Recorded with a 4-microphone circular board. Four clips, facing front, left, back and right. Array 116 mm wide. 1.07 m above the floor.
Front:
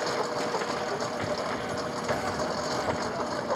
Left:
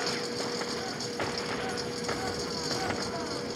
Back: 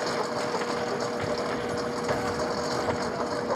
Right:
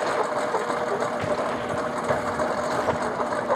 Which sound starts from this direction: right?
A lawn mower, at 0.0 s.